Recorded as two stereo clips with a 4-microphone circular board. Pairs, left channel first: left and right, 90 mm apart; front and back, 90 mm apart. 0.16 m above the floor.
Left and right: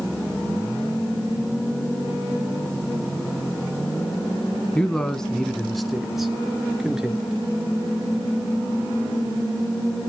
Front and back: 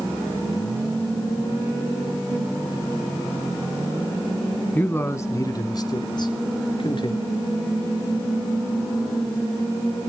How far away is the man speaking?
About 1.1 m.